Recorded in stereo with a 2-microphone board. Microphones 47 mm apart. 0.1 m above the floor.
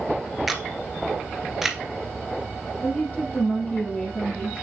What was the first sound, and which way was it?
A camera shutter, 5° right (ahead or behind).